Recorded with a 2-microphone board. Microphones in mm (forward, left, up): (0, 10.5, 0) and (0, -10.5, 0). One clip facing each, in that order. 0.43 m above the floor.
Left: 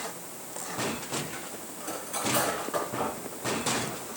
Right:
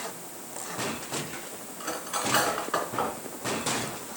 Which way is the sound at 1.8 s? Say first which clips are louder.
Right 2 dB; 30° right (ahead or behind).